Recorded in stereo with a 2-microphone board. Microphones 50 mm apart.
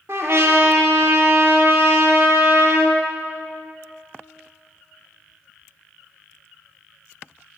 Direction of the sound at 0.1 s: 60° right (ahead or behind).